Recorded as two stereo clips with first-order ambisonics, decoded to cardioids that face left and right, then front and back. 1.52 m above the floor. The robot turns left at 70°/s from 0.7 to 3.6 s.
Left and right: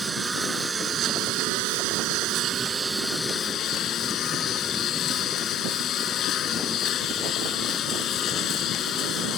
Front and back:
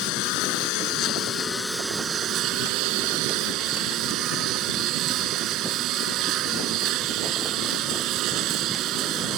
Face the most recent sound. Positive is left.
turn(degrees=140)